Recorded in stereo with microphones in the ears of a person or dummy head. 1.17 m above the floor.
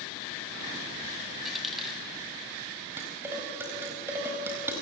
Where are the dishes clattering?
15° right (ahead or behind), 5 m.